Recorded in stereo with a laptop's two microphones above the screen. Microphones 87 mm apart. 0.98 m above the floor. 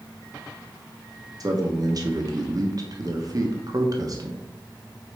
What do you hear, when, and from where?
1.4 s a man speaking: 45° right (ahead or behind), 1.1 m